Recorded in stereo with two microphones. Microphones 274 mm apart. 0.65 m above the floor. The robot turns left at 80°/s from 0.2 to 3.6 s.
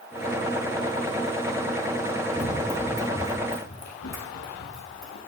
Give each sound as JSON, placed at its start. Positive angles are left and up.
{"t": 2.4, "sound": "running footsteps", "side_deg": -55, "distance_m": 1.6}